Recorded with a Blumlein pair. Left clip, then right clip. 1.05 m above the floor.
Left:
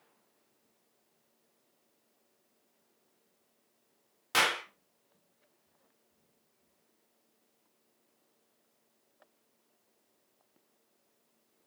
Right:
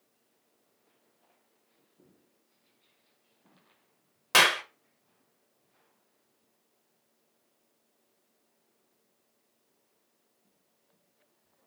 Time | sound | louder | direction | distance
4.3 | a clap | right 6 dB | 65° right | 0.7 m